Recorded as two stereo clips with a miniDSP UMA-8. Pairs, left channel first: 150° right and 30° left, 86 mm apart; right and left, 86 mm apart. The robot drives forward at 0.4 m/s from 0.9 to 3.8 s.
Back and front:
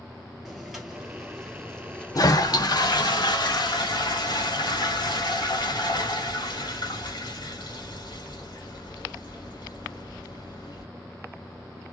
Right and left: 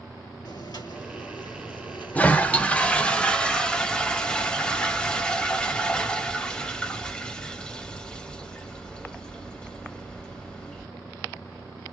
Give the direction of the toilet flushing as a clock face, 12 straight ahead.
5 o'clock.